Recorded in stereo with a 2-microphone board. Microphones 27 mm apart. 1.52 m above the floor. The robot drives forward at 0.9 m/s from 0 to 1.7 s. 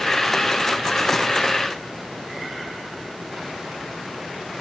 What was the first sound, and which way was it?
Only background noise.